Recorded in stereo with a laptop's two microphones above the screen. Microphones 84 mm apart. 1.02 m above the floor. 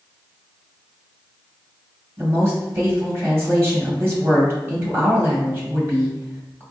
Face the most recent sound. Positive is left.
turn(degrees=-25)  # may be behind; listen again after turning